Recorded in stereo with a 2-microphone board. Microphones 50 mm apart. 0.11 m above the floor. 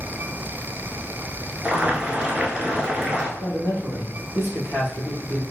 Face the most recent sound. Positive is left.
turn(degrees=50)  # may be behind; listen again after turning